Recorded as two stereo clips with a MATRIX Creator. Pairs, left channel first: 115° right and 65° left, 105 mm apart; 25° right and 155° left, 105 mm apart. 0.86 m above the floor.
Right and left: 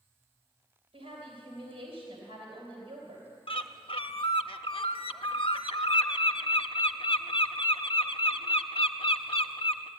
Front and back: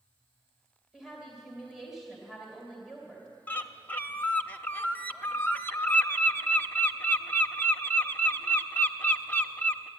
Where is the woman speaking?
70° left, 3 m.